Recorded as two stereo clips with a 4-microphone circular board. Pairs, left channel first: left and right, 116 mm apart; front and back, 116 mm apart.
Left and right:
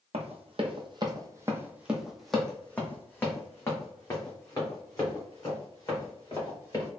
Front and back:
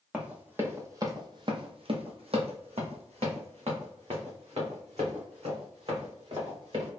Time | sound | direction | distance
0.1 | running footsteps | 100° right | 1.2 m